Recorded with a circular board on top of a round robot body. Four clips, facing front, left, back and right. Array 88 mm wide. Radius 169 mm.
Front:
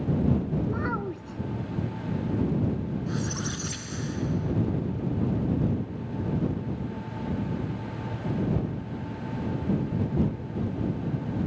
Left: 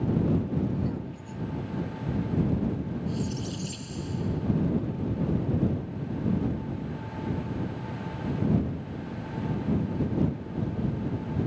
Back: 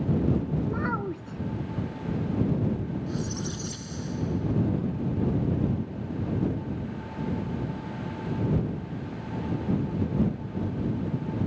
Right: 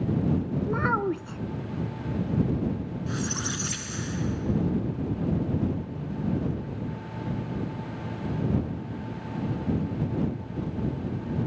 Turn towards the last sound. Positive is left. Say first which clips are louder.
# even, front 1 dB
turn(degrees=-70)